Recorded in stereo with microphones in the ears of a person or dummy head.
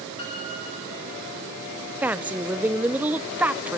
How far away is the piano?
About 8.5 m.